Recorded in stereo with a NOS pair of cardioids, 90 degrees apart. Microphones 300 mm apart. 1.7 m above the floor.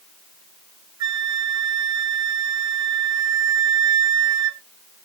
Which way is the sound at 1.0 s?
65° right.